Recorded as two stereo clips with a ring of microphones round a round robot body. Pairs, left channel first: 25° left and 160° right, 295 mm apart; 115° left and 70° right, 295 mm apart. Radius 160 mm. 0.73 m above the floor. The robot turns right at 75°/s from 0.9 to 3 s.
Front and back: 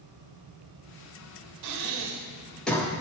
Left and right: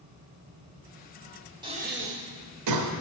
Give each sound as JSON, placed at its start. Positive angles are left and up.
{"t": 1.6, "sound": "breathing", "azimuth_deg": -140, "distance_m": 1.3}